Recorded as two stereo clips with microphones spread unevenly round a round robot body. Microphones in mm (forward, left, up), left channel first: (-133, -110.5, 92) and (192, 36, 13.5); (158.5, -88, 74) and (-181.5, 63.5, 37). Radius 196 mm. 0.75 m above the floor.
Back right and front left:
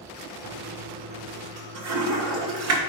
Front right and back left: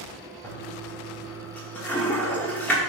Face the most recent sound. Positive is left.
turn(degrees=65)